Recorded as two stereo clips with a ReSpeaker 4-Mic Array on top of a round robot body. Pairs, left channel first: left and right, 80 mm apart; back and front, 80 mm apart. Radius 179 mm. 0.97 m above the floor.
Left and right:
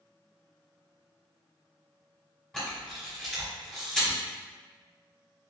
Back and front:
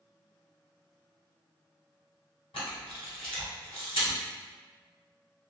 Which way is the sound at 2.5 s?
170° left.